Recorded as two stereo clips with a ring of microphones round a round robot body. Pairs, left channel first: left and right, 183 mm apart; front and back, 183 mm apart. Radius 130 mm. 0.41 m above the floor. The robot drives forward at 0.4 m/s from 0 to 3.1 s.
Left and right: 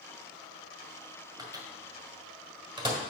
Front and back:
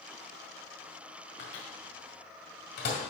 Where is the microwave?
20° right, 2 m; by 3.0 s 30° right, 1.5 m.